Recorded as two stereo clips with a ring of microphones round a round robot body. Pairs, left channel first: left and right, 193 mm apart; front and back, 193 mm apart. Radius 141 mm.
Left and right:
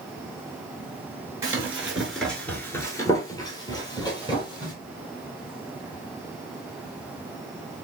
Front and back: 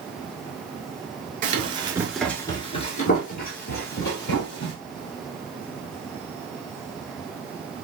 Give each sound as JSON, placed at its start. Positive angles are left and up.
{"t": 1.4, "sound": "running footsteps", "azimuth_deg": -160, "distance_m": 1.0}